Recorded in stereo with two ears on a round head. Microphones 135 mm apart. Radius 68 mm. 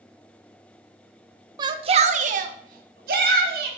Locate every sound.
1.6 s a shout: 25° right (ahead or behind), 0.9 m; by 3.7 s 70° right (ahead or behind), 2 m